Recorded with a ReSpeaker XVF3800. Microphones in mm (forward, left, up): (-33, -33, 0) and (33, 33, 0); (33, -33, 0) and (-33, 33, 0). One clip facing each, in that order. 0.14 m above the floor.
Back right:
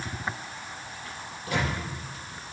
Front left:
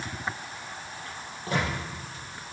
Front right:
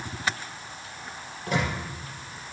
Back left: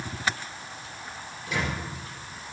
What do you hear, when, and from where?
1.5 s a microwave: 5° right, 5 m